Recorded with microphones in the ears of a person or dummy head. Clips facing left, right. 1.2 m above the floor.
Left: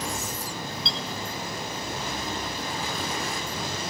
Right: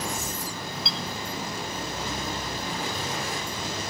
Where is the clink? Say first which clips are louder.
Even; 5° right (ahead or behind).